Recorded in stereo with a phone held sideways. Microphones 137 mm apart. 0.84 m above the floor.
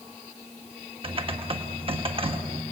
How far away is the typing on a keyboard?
About 1.5 m.